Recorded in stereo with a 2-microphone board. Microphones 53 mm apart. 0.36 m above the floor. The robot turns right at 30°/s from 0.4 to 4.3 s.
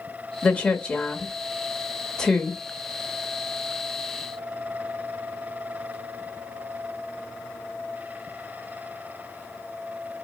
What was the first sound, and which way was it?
A woman speaking, 25° left (ahead or behind).